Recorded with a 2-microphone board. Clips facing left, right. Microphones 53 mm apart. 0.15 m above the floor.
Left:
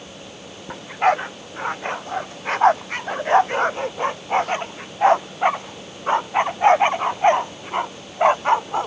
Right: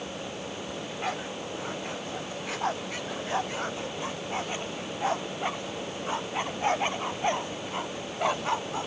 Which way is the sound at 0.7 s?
50° left (ahead or behind).